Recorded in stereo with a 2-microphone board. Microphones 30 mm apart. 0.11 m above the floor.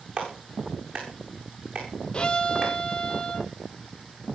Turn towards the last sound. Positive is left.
turn(degrees=30)  # may be behind; listen again after turning